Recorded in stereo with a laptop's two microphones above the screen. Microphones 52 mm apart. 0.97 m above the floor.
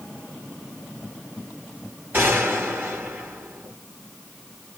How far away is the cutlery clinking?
No cutlery clinking in this recording.